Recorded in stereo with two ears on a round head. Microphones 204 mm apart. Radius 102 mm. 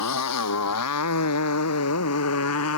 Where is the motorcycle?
80° left; by 2.8 s 70° left (ahead or behind).